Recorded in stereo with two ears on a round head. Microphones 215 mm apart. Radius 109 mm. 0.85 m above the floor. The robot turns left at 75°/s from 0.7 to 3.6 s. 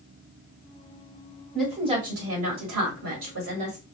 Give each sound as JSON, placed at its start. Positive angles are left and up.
{"t": 1.5, "sound": "a woman speaking", "azimuth_deg": 5, "distance_m": 1.5}